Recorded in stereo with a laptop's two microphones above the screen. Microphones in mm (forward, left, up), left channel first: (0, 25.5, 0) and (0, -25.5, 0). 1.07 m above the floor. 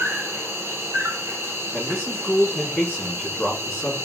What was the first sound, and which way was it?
An insect, 60° right (ahead or behind).